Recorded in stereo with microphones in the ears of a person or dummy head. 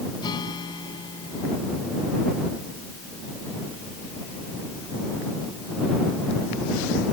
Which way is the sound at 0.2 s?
25° left (ahead or behind).